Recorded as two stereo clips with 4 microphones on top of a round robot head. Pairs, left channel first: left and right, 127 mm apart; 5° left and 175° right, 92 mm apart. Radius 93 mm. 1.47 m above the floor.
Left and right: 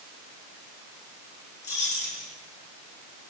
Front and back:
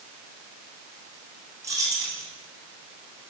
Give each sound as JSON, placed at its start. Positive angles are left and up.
{"t": 1.6, "sound": "keys jangling", "azimuth_deg": 130, "distance_m": 9.0}